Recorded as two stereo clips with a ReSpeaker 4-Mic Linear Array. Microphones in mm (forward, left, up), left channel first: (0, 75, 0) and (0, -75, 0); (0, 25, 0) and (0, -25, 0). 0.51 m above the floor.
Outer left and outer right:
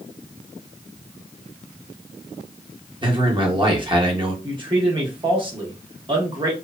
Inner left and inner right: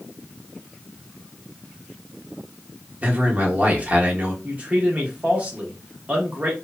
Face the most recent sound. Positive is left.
turn(degrees=-30)  # may be behind; listen again after turning